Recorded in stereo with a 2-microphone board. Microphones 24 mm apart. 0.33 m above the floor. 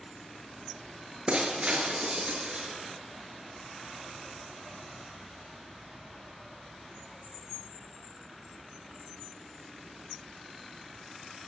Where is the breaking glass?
45° right (ahead or behind), 3 m.